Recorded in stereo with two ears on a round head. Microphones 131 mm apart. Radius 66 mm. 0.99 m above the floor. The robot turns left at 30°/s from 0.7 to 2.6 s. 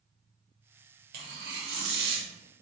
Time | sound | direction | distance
1.1 | tearing paper | 60° right | 0.7 m